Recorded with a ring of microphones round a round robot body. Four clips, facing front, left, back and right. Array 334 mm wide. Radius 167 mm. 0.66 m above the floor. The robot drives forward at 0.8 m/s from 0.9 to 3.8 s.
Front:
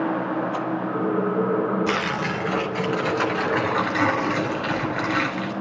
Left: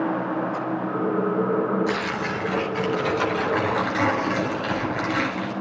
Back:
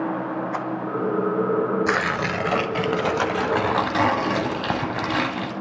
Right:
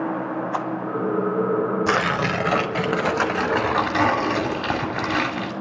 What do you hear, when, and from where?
0.5 s a rattle: 100° right, 0.8 m
1.9 s tearing paper: 100° right, 1.2 m; by 5.5 s 145° right, 2 m